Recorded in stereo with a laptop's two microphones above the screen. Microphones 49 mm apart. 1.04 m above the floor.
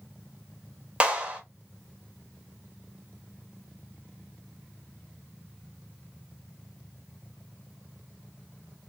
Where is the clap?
30° right (ahead or behind), 1.3 m.